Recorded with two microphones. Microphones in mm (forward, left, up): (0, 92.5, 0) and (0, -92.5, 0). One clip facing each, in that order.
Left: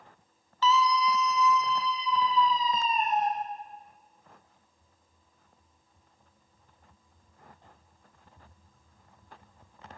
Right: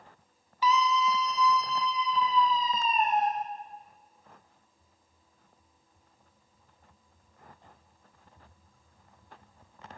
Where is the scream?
15° right (ahead or behind), 1.0 m; by 3.3 s 55° right (ahead or behind), 3 m.